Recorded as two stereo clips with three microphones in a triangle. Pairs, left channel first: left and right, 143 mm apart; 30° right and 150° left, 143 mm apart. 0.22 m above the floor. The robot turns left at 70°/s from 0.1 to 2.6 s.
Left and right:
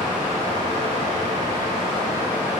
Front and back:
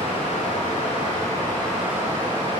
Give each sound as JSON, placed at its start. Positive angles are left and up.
{"t": 0.0, "sound": "running water", "azimuth_deg": -10, "distance_m": 1.3}